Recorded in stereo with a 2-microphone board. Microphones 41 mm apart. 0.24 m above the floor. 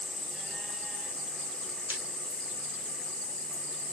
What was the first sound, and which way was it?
Breaking glass, 60° right (ahead or behind).